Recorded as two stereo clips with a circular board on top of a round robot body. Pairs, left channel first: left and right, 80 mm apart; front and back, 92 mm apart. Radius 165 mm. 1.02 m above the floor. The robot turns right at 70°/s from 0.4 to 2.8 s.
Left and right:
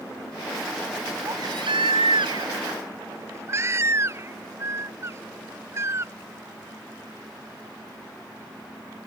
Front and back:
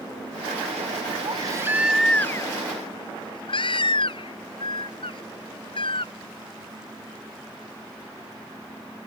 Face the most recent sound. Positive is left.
turn(degrees=-35)